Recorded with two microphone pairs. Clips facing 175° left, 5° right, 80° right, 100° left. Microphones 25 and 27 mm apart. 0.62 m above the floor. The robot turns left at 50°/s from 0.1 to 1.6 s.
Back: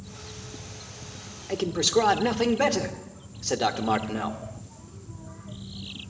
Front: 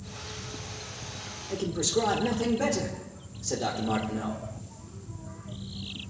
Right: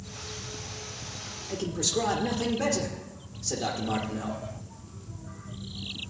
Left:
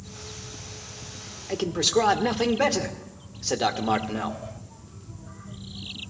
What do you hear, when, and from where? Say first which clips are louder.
1.5 s a man speaking: back 5 dB, left 6 dB; 145° left, 1.4 m; by 4.4 s 140° left, 1.4 m